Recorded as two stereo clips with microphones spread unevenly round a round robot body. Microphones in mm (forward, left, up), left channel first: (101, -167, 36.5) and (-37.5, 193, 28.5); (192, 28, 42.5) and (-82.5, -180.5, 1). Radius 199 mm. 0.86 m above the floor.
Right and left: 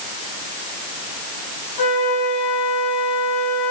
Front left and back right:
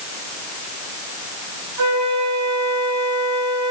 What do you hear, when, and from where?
1.8 s a flute: 105° right, 7 m